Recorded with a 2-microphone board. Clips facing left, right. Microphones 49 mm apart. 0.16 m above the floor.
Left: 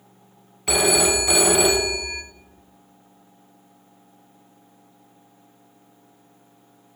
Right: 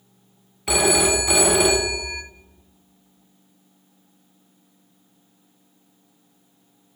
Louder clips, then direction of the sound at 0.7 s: Right 1 dB; centre (ahead or behind).